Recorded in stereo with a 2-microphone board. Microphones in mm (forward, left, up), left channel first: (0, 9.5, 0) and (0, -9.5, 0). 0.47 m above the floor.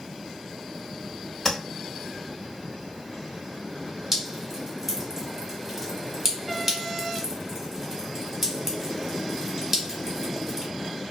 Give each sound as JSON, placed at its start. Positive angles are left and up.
{"t": 1.4, "sound": "tapping", "side_deg": 10, "distance_m": 1.2}
{"t": 4.1, "sound": "dripping", "side_deg": -15, "distance_m": 1.2}